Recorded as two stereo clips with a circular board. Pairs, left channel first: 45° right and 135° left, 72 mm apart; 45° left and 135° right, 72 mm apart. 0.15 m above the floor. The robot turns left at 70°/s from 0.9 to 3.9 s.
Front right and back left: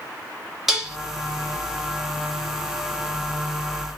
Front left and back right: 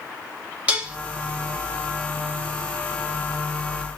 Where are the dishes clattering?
150° right, 0.8 m; by 1.0 s 155° right, 0.8 m.